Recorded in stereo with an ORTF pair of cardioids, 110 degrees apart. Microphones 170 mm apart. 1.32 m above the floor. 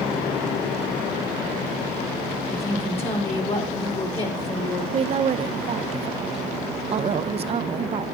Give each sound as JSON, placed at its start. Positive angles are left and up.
{"t": 2.5, "sound": "a woman speaking", "azimuth_deg": 35, "distance_m": 4.0}
{"t": 4.9, "sound": "a woman speaking", "azimuth_deg": -35, "distance_m": 0.7}